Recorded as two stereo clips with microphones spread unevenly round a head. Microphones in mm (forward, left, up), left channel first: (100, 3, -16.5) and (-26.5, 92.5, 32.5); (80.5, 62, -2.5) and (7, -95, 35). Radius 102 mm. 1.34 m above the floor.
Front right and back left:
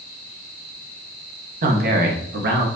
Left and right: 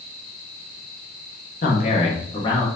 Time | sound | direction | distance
1.6 | a man speaking | 120° left | 1.7 m